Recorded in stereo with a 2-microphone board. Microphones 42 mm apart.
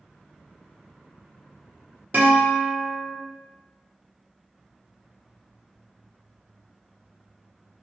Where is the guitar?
50° right (ahead or behind), 0.9 m.